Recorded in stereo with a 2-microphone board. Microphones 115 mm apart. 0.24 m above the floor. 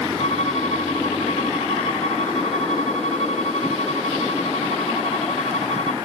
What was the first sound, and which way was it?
A violin, 75° left (ahead or behind).